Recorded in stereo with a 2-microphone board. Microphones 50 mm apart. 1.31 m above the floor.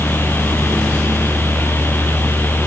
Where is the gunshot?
No gunshot in this recording.